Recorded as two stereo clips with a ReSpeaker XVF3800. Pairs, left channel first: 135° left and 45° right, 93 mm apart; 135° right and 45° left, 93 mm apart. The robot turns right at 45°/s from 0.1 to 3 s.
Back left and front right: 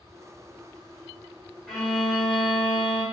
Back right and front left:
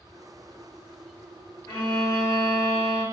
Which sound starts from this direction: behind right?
A violin, at 1.7 s.